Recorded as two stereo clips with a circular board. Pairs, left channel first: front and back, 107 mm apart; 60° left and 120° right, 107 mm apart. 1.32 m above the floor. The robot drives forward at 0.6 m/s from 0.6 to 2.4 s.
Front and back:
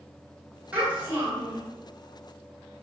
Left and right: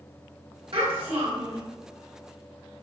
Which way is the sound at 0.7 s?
105° right.